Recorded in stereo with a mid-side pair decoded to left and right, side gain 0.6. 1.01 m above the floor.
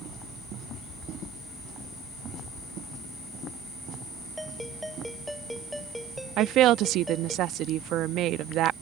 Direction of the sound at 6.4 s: 60° right.